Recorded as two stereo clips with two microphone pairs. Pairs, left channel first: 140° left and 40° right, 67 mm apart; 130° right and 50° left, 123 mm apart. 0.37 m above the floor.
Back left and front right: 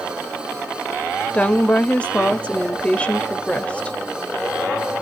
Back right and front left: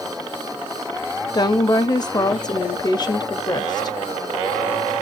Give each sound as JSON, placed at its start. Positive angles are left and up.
{"t": 1.3, "sound": "a woman speaking", "azimuth_deg": -160, "distance_m": 1.1}